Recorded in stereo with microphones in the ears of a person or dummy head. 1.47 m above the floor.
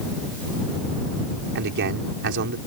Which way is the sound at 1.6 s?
60° right (ahead or behind).